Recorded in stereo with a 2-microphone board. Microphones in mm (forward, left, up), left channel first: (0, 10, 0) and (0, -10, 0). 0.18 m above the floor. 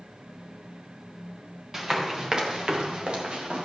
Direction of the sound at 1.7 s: 25° right (ahead or behind).